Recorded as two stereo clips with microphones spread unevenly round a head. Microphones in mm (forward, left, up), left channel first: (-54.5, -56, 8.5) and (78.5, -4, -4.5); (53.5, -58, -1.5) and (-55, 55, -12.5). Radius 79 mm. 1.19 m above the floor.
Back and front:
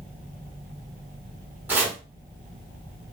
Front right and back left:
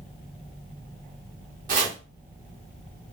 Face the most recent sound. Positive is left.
turn(degrees=95)